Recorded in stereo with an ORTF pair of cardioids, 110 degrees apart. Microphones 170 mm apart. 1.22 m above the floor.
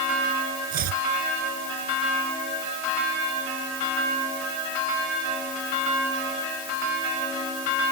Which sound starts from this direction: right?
Chopping, at 0.7 s.